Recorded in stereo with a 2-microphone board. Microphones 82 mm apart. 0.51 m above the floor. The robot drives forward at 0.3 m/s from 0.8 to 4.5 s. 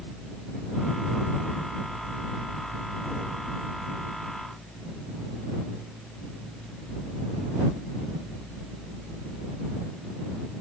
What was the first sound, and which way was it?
Only background noise.